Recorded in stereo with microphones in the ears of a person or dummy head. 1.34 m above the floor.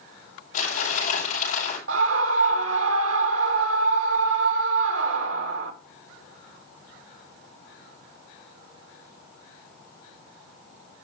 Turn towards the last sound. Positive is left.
turn(degrees=-80)